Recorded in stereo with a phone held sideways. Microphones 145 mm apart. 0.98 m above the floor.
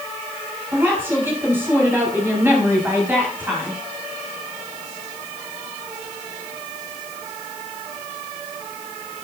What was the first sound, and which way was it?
A woman speaking, 15° right (ahead or behind).